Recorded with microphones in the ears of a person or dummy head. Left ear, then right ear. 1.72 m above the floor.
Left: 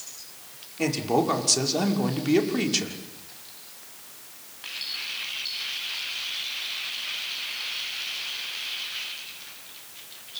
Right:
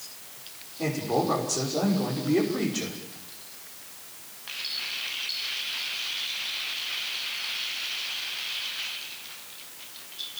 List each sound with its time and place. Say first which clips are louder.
0.8 s a man speaking: left 3 dB; 70° left (ahead or behind), 6 m